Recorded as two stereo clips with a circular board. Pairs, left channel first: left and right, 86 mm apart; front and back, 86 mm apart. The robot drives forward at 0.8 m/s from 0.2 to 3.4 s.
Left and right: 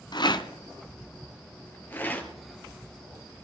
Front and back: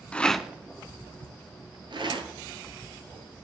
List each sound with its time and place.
0.1 s a rattle: 75° left, 0.7 m; by 2.3 s 160° left, 1.7 m